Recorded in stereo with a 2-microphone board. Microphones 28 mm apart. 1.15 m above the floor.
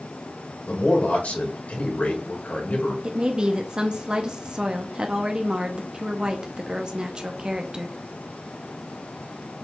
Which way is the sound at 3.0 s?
30° right (ahead or behind).